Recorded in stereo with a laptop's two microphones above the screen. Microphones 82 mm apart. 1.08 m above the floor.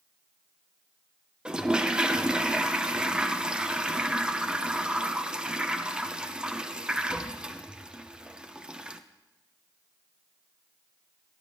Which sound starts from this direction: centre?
A toilet flushing, at 1.4 s.